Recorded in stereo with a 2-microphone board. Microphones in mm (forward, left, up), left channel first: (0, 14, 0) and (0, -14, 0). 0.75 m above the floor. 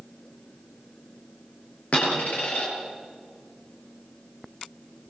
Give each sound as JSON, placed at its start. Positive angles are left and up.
{"t": 1.9, "sound": "a dropped coin", "side_deg": 60, "distance_m": 7.0}